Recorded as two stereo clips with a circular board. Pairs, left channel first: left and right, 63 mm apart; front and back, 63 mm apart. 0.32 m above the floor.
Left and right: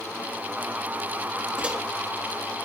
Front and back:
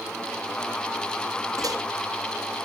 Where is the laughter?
No laughter in this recording.